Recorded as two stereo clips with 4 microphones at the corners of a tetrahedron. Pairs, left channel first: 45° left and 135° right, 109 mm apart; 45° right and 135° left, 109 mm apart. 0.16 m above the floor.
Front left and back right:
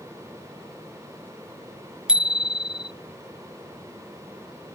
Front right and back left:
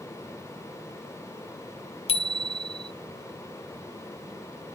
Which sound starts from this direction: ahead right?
A bicycle bell, at 2.1 s.